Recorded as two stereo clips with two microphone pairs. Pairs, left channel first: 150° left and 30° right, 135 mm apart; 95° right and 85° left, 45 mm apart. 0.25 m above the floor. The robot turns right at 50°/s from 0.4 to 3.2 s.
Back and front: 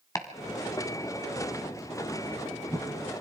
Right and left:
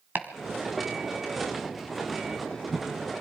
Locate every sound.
0.1 s chopping: 95° left, 1.8 m; by 2.9 s 140° right, 1.8 m